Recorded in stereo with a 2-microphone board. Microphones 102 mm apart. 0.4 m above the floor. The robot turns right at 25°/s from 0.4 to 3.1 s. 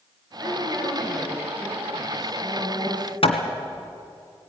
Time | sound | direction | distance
0.4 | a woman speaking | 15° right | 8.5 m
3.2 | hammering | 65° left (ahead or behind) | 2.0 m